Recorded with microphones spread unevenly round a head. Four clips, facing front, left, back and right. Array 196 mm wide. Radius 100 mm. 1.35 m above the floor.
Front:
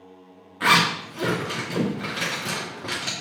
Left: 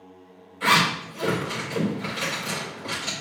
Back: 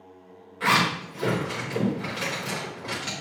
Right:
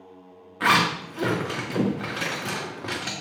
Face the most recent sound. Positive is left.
turn(degrees=-50)